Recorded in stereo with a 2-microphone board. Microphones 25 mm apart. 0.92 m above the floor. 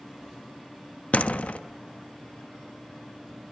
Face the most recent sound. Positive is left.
turn(degrees=60)  # may be behind; listen again after turning